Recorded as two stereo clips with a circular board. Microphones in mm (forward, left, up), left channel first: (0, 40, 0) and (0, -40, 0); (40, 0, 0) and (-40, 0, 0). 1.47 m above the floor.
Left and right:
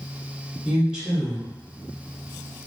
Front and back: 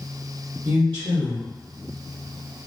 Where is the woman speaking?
170° right, 0.8 m.